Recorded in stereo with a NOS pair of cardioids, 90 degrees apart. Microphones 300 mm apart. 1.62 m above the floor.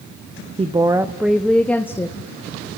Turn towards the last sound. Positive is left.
turn(degrees=10)